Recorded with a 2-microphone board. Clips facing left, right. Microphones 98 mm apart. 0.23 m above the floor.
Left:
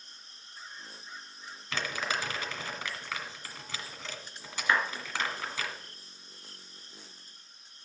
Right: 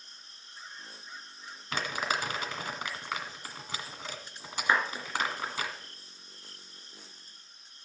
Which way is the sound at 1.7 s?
15° right (ahead or behind).